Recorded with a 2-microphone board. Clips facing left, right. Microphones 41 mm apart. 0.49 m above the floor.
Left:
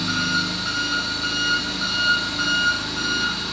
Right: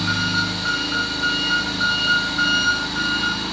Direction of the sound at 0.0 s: 55° right (ahead or behind).